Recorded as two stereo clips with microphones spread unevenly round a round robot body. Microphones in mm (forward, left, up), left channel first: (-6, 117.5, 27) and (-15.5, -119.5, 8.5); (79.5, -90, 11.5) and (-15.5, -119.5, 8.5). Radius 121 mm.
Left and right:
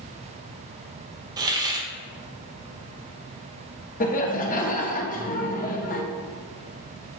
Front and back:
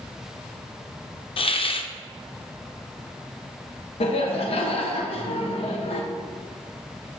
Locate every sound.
1.4 s a hiss: 15° right, 0.6 m
4.0 s laughter: 30° left, 0.9 m